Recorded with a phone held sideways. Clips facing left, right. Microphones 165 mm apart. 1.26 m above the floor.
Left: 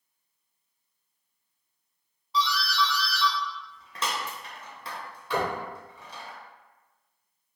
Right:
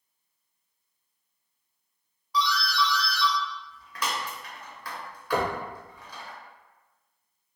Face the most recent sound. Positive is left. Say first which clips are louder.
# right 1 dB
turn(degrees=-65)  # may be behind; listen again after turning